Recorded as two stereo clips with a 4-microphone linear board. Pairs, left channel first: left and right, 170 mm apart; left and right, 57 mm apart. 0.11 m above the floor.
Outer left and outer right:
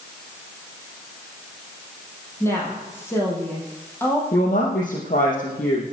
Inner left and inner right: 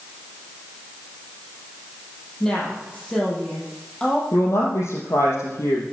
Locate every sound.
2.4 s a woman speaking: 15° left (ahead or behind), 5 m
4.3 s a woman speaking: 60° left (ahead or behind), 5.5 m